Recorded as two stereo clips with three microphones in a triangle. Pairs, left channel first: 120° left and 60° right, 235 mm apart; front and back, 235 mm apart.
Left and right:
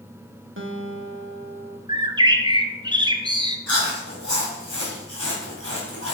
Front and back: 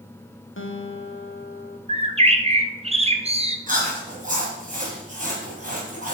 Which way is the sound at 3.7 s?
125° left.